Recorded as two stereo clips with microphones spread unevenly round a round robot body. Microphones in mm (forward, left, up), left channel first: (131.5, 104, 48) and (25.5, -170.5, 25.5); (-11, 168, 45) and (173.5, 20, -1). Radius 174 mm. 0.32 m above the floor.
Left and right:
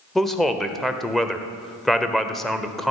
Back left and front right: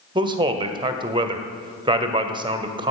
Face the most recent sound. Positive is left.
turn(degrees=-25)